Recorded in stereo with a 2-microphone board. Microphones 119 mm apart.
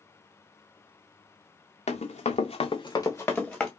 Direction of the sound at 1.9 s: 75° left (ahead or behind).